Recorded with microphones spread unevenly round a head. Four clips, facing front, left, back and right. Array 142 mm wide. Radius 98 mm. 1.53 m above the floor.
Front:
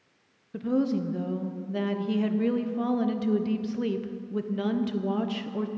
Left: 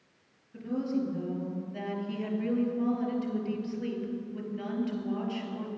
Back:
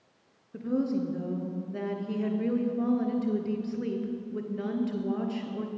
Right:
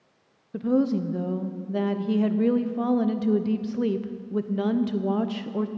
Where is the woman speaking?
75° right, 0.8 m.